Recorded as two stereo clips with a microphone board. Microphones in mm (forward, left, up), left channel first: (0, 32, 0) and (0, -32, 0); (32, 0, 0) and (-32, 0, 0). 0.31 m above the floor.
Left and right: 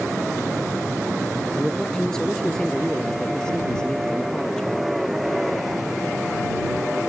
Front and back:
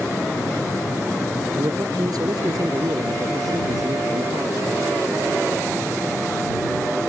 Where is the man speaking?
170° left.